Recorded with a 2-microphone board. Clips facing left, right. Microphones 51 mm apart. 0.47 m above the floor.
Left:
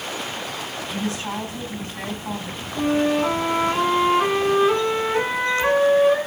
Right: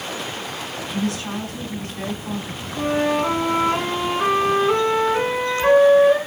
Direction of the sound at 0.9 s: 25° left (ahead or behind).